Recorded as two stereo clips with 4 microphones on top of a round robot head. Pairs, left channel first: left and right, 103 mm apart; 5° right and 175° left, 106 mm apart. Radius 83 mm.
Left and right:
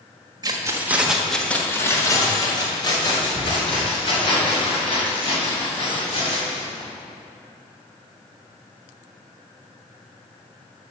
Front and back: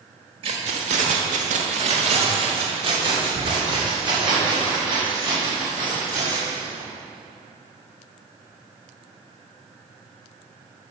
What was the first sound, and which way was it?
Keys jangling, 145° right.